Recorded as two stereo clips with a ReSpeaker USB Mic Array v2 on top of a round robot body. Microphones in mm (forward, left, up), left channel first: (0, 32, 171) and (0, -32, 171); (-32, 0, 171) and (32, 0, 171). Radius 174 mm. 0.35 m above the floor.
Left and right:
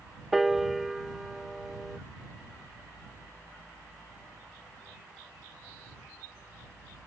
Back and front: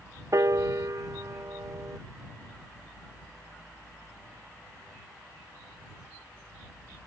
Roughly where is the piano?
Ahead.